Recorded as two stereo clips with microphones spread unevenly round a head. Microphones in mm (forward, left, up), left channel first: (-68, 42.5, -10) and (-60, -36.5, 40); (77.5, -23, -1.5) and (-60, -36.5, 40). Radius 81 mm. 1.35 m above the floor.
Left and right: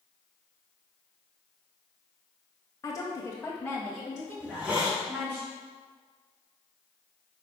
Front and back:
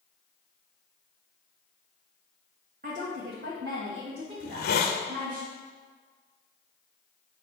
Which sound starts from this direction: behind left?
A woman speaking, at 2.8 s.